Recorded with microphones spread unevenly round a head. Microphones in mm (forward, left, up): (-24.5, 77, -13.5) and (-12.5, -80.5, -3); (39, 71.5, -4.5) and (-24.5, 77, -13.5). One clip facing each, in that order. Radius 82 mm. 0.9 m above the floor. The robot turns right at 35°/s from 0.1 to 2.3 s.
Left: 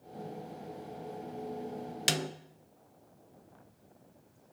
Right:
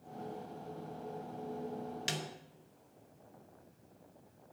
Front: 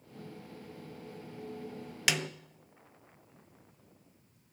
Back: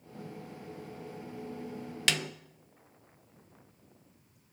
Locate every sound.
2.1 s a snare drum: 75° left, 0.6 m; by 2.3 s 85° left, 0.6 m